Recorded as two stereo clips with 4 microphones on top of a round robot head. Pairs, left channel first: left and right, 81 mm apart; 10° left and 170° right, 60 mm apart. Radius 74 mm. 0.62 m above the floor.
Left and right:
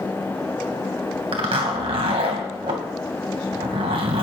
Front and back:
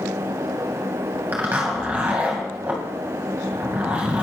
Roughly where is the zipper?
Right.